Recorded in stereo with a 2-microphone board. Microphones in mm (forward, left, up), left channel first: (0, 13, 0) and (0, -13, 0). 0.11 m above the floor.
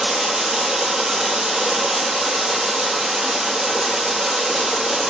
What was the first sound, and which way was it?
Running water, 25° right (ahead or behind).